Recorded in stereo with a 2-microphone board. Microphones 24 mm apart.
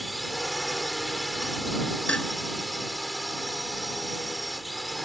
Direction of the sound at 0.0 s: Centre (ahead or behind).